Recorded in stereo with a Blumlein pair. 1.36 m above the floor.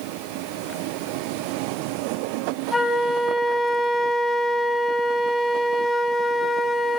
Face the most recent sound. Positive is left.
turn(degrees=10)